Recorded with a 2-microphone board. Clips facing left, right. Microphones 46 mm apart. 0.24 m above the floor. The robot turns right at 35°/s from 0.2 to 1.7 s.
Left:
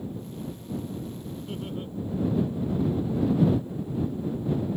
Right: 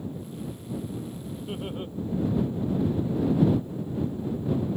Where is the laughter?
20° right (ahead or behind); by 1.9 s 30° right (ahead or behind).